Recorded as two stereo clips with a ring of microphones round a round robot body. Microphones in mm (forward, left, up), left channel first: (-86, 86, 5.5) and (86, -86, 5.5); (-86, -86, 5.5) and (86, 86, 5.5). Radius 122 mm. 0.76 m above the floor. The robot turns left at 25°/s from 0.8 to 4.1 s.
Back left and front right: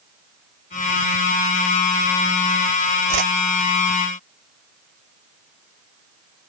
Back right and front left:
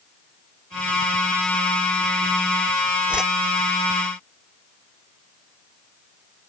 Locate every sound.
3.1 s a whoosh: 40° right; by 3.3 s 45° right